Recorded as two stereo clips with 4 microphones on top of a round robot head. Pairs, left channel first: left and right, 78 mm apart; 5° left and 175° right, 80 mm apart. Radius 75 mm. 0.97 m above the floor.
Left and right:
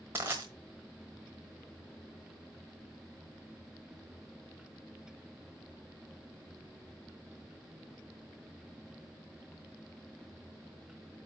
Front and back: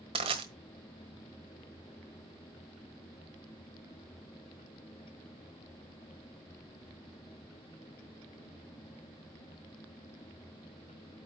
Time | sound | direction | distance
0.1 | crushing | 160° right | 1.3 m